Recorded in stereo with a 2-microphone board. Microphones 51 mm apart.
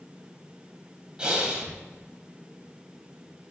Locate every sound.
1.2 s breathing: 20° right (ahead or behind), 1.1 m